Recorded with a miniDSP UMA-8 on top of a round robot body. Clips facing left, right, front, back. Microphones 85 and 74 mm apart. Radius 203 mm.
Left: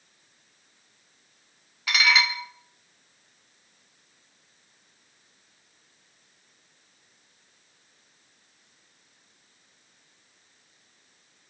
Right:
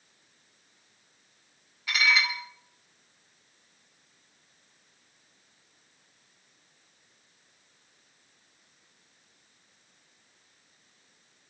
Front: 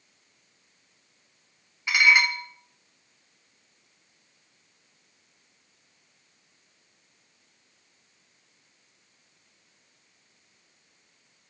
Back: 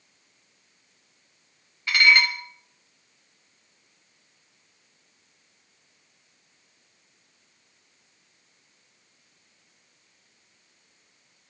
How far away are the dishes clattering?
About 1.7 m.